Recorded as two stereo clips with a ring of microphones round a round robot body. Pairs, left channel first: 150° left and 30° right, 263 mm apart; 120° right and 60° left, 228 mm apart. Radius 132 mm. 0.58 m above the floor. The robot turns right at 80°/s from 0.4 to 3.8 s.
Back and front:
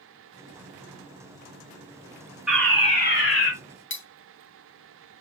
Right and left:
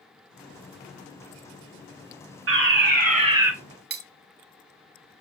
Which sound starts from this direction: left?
Cutlery clinking, at 3.9 s.